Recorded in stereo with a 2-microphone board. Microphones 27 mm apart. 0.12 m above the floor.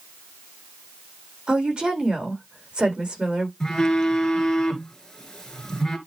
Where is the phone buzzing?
20° left (ahead or behind), 2 m.